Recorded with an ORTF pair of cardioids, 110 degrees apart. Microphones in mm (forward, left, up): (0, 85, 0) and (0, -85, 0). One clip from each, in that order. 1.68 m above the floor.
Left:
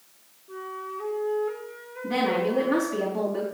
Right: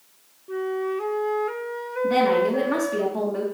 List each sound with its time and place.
0.5 s a flute: 45° right, 0.6 m
2.0 s a woman speaking: 20° right, 2.5 m